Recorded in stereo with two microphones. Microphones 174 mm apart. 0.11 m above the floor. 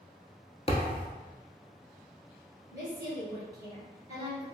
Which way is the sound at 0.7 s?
35° left (ahead or behind).